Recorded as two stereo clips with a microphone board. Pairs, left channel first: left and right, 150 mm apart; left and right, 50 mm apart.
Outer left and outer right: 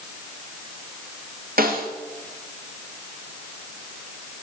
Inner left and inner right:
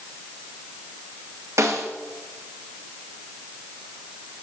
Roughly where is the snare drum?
Right.